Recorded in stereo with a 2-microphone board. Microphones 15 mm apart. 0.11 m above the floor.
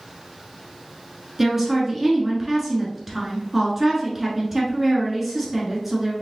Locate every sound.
1.4 s a woman speaking: 20° right (ahead or behind), 1.1 m